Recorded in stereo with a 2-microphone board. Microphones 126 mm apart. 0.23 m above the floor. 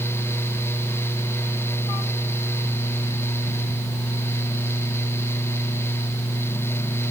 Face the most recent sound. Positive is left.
No sound to turn to.